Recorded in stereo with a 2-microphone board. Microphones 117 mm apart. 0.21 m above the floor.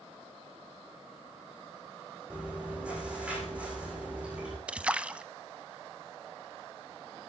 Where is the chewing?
10° right (ahead or behind), 7 m.